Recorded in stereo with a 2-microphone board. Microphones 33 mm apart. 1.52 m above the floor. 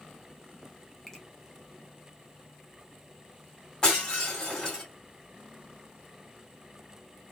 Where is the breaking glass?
25° left (ahead or behind), 2.5 m.